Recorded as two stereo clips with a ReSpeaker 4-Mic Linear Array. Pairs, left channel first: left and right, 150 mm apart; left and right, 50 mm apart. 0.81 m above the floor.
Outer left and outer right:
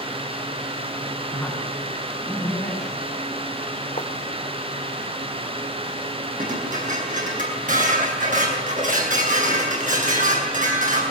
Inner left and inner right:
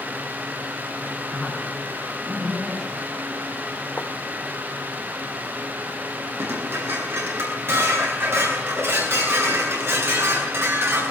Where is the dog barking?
No dog barking in this recording.